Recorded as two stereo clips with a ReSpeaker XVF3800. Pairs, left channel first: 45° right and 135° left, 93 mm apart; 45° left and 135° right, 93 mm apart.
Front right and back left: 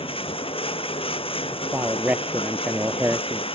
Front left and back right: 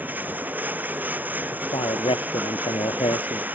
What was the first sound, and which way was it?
Running water, 60° right.